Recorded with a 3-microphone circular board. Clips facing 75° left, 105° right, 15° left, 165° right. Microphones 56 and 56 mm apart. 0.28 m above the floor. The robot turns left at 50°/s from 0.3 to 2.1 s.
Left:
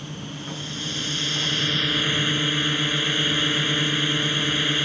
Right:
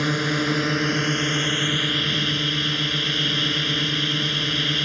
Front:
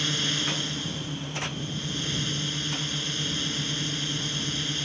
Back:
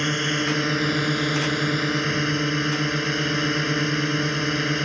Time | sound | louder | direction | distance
0.0 | a drone | right 13 dB, back 6 dB | 115° right | ?